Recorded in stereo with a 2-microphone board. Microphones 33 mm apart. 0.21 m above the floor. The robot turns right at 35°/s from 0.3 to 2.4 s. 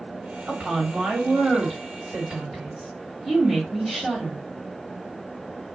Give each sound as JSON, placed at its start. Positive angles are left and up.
{"t": 0.5, "sound": "a woman speaking", "azimuth_deg": -80, "distance_m": 2.5}